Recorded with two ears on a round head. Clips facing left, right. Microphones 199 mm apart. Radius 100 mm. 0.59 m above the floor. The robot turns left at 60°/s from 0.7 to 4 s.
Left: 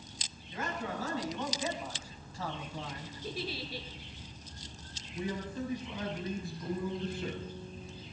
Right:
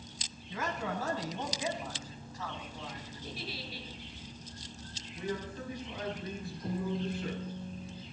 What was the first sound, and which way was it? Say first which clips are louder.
A man speaking: right 1 dB; 110° right.